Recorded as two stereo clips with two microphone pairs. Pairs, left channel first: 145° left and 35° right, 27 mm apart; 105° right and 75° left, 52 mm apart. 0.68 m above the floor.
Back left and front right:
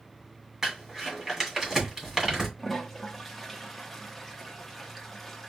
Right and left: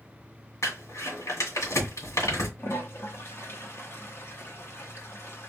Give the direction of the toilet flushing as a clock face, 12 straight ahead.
4 o'clock.